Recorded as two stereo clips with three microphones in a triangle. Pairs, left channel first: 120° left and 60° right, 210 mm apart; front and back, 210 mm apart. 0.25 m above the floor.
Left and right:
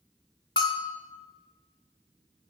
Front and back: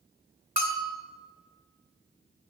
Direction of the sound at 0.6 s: 175° left.